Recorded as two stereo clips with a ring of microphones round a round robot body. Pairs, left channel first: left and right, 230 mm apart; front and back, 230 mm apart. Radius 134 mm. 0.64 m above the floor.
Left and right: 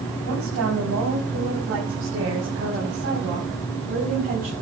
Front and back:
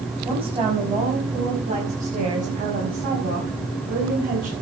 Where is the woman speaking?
115° right, 5.5 m; by 4.5 s 140° right, 5 m.